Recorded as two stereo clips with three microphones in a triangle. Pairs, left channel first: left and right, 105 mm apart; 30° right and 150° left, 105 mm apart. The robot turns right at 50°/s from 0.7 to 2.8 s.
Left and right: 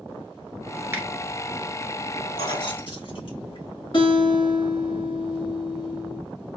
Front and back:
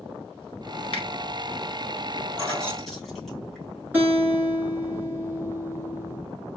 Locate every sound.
0.9 s a finger snap: 25° right, 2.0 m; by 1.1 s 20° right, 2.0 m
2.4 s keys jangling: 40° left, 2.5 m; by 3.7 s 60° left, 2.5 m
3.9 s a guitar: 85° left, 2.5 m